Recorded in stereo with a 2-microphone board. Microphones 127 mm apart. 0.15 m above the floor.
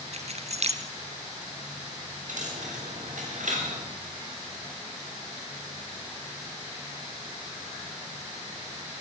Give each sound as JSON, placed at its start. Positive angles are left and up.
{"t": 0.1, "sound": "keys jangling", "side_deg": -60, "distance_m": 1.9}
{"t": 2.3, "sound": "a dropped coin", "side_deg": -80, "distance_m": 8.5}